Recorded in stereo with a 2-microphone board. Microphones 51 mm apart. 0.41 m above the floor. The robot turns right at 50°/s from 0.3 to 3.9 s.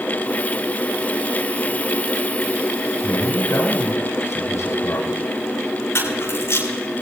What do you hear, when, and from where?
3.0 s a man speaking: 60° left, 6.5 m; by 5.2 s 100° left, 6.5 m
6.0 s a camera shutter: 55° left (ahead or behind), 7 m